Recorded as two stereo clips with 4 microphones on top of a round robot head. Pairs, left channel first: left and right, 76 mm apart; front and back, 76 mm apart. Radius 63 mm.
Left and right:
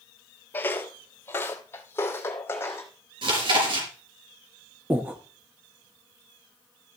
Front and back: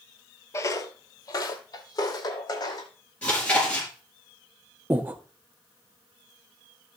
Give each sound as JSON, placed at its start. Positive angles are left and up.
{"t": 0.5, "sound": "footsteps", "azimuth_deg": 35, "distance_m": 0.7}
{"t": 3.2, "sound": "chewing", "azimuth_deg": -80, "distance_m": 5.0}
{"t": 4.9, "sound": "breathing", "azimuth_deg": -140, "distance_m": 1.1}